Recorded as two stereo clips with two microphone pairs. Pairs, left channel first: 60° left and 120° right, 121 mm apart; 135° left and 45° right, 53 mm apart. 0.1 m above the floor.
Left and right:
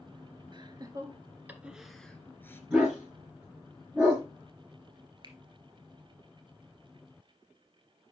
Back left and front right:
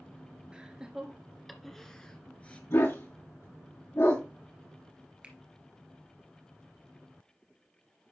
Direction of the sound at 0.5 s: 110° right.